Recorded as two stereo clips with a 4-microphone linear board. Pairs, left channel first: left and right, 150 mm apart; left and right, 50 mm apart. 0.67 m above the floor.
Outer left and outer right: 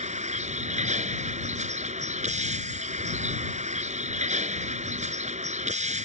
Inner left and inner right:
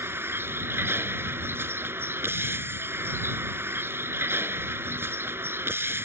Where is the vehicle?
50° right (ahead or behind).